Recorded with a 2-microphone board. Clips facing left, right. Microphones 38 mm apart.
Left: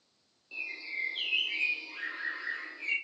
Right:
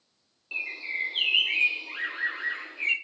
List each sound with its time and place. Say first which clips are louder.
0.5 s a bird: right 6 dB; 55° right (ahead or behind), 1.2 m